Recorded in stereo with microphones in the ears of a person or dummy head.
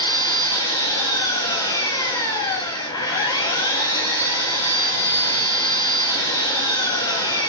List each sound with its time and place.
0.0 s an engine running: 20° left (ahead or behind), 1.0 m